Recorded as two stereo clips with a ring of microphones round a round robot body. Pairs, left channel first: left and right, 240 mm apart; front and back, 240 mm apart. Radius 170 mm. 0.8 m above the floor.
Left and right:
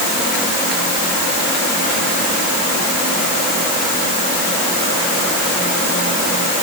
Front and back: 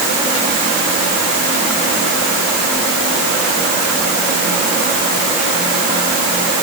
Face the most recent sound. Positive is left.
No sound to turn to.